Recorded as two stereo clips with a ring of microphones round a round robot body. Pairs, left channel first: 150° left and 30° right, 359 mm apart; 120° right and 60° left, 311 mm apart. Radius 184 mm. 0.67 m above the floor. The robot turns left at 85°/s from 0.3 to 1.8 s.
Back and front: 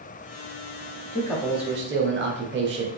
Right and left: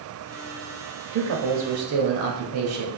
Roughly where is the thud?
I don't hear a thud.